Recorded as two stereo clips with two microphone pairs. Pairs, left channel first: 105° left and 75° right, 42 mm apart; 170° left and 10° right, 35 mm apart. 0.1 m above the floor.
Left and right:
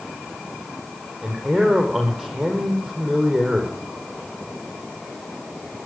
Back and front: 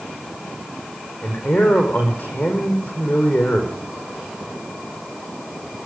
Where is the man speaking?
165° right, 4.5 m.